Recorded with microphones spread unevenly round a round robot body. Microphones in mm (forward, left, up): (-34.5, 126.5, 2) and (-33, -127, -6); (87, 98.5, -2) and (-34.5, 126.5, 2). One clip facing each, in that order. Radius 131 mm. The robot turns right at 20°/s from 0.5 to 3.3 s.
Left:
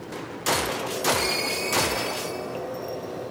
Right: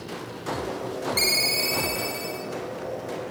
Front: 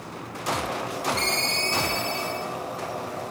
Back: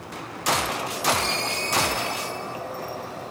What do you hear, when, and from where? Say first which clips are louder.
1.2 s a ringtone: left 1 dB, back 1 dB; 65° right, 3.5 m; by 2.5 s 40° right, 3.5 m